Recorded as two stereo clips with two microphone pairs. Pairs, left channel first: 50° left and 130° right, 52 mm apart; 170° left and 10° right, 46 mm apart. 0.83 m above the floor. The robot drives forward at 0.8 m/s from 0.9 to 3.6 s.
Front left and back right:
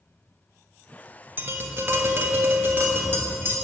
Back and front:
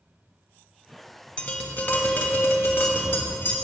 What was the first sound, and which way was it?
Tapping, 135° right.